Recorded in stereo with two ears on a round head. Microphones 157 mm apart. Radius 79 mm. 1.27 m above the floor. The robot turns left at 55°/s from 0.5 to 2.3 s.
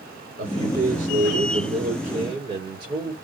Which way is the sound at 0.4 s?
55° right.